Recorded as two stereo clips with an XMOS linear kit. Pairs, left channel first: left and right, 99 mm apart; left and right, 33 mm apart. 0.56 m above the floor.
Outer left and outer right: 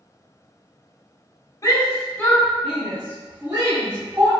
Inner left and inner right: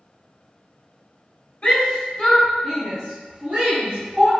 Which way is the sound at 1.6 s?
35° left (ahead or behind).